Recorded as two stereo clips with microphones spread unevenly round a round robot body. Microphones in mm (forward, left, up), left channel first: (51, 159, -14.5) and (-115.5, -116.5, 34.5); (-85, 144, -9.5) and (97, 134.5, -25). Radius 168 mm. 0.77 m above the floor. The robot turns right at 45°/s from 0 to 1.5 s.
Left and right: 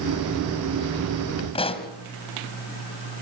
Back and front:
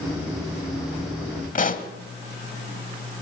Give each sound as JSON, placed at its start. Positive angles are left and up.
{"t": 1.6, "sound": "a pop", "azimuth_deg": 135, "distance_m": 1.3}